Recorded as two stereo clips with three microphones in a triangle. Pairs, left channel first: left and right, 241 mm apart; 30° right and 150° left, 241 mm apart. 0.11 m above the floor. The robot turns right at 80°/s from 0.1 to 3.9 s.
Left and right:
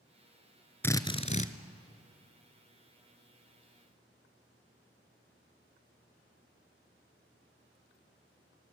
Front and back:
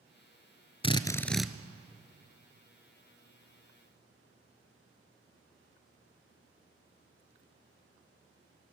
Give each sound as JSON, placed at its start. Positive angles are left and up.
{"t": 0.8, "sound": "a drill", "azimuth_deg": 15, "distance_m": 0.8}